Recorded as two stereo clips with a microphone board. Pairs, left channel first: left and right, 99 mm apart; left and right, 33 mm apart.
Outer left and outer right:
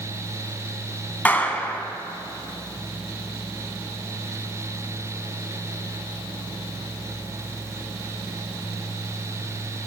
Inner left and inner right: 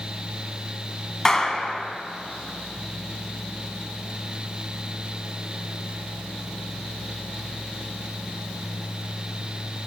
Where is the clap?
20° left (ahead or behind), 1.1 m.